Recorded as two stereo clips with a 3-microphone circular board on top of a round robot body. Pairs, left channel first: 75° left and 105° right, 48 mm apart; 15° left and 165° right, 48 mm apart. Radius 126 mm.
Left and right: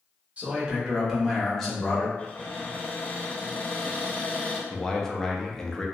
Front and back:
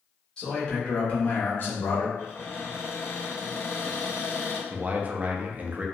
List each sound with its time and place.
0.4 s a man speaking: 50° right, 1.5 m; by 2.1 s 15° left, 1.3 m
2.2 s a cupboard door: 30° left, 1.3 m
4.7 s a man speaking: 150° left, 0.7 m